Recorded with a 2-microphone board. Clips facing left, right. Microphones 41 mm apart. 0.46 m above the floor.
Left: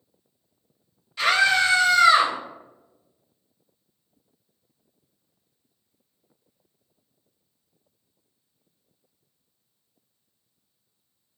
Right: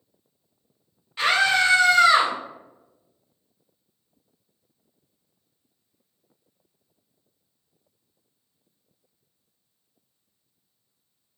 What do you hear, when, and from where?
1.2 s a scream: 30° right (ahead or behind), 1.7 m; by 2.3 s 45° right (ahead or behind), 1.7 m